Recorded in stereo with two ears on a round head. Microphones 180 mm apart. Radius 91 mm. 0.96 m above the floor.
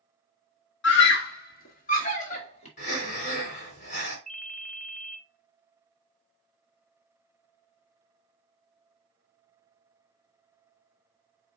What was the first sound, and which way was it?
A scream, 65° left (ahead or behind).